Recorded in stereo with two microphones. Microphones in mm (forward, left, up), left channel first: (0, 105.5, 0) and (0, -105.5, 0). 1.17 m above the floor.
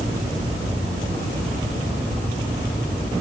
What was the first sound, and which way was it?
Only background noise.